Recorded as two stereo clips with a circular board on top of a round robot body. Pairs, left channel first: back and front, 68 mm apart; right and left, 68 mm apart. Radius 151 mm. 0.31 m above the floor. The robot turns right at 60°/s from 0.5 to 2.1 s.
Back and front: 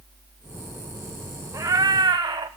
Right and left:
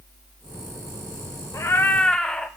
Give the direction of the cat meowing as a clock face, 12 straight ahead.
2 o'clock.